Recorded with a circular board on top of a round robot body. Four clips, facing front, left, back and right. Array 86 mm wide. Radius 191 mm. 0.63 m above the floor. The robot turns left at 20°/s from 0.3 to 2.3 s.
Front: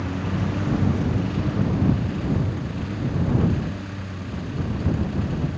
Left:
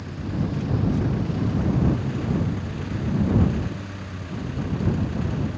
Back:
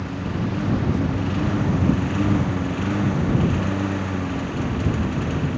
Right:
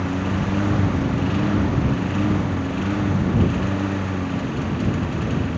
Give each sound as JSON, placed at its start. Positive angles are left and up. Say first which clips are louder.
{"t": 0.0, "sound": "a lawn mower", "louder": "right 6 dB, even", "azimuth_deg": -90}